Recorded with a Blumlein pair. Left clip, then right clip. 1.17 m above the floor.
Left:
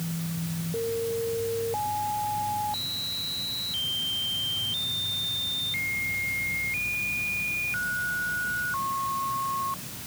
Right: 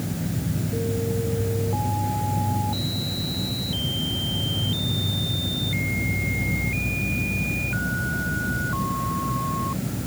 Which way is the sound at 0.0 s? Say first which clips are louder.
Right 5 dB; 55° right.